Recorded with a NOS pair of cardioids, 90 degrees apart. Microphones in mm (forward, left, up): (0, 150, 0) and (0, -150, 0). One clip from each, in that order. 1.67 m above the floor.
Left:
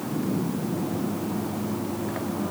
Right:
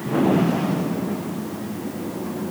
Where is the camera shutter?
No camera shutter in this recording.